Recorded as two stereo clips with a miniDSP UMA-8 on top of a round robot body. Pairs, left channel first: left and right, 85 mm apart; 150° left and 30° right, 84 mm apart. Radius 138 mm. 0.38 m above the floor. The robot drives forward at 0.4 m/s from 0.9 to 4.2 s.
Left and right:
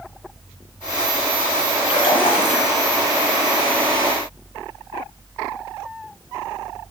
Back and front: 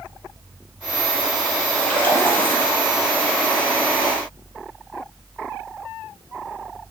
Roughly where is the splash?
Left.